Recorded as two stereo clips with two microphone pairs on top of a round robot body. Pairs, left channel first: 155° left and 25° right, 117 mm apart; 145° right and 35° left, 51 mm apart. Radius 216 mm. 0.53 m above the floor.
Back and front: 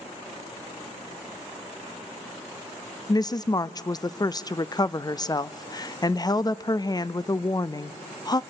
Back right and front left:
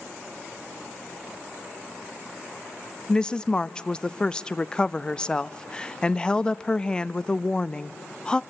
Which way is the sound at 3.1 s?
170° left.